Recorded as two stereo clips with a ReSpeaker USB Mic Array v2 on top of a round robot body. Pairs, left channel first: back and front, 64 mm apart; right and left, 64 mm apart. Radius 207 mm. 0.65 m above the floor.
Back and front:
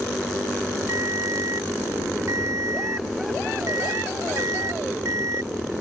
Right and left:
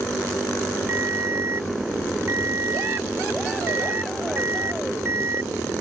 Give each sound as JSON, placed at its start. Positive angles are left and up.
{"t": 0.9, "sound": "a ringtone", "azimuth_deg": 40}